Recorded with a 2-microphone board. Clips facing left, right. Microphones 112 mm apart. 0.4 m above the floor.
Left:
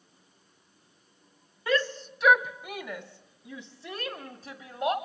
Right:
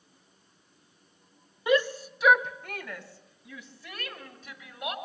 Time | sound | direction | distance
1.7 | a shout | 20° right (ahead or behind) | 0.8 m